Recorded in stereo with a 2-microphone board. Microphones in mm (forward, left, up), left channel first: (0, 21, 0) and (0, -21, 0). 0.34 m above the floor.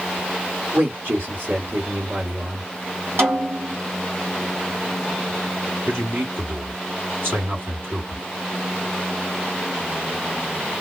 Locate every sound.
0.7 s a man speaking: 55° right (ahead or behind), 2.5 m
3.2 s a snare drum: 65° right (ahead or behind), 2.5 m
5.9 s a man speaking: 60° right (ahead or behind), 2.5 m